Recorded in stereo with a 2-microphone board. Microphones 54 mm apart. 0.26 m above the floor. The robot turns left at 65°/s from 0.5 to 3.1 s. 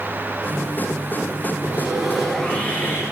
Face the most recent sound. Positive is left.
turn(degrees=120)